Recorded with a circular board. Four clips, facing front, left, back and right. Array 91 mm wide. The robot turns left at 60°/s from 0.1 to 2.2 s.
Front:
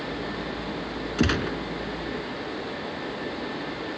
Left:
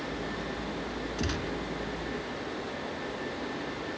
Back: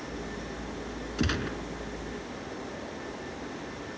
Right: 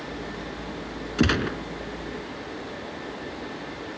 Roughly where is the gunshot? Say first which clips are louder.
Right 12 dB, front 6 dB; ahead right.